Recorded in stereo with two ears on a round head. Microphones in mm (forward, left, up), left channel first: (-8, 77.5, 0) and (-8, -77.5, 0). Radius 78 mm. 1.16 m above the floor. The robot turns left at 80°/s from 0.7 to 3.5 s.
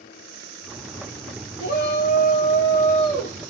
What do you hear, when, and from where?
1.6 s a shout: 120° left, 1.0 m; by 3.4 s 20° right, 1.0 m